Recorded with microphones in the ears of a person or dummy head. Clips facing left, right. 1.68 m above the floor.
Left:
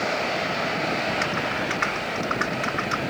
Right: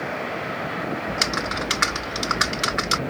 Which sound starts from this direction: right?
Typing on a keyboard, at 1.1 s.